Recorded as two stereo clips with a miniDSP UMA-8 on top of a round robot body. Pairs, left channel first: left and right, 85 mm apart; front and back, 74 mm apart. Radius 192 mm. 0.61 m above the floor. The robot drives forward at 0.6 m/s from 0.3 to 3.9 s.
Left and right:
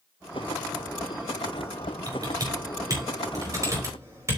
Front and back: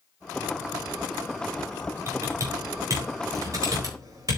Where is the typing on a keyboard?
130° right, 3.5 m; by 4.4 s 145° right, 4 m.